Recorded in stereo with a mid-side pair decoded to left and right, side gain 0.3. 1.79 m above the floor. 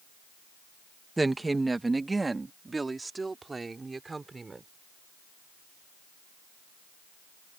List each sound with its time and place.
1.2 s a woman speaking: 25° right; by 4.7 s 35° right